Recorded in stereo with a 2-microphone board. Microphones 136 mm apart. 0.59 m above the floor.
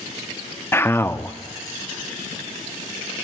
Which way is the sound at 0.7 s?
15° left (ahead or behind).